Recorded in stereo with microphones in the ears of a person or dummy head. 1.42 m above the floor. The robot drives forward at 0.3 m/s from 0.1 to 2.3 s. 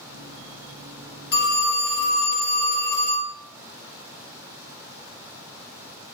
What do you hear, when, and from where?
1.3 s a phone ringing: 55° left (ahead or behind), 0.9 m